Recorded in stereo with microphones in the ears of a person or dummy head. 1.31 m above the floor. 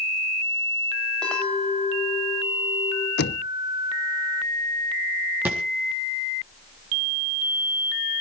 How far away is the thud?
About 3.5 m.